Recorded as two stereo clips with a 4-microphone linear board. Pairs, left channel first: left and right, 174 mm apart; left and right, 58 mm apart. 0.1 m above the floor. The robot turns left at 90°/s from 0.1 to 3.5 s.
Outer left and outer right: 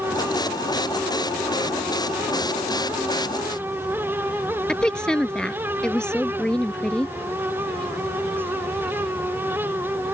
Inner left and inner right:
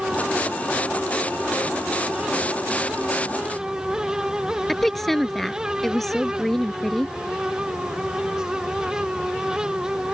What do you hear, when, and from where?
4.7 s a woman speaking: 5° left (ahead or behind)